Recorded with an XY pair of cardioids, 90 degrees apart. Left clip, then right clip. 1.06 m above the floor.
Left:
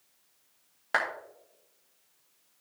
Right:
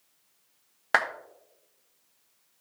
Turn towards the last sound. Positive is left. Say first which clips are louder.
# right 4 dB
turn(degrees=-55)